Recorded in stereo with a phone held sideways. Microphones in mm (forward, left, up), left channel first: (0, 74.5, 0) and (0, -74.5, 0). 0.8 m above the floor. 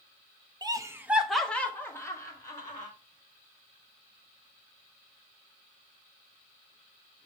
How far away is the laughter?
About 0.6 m.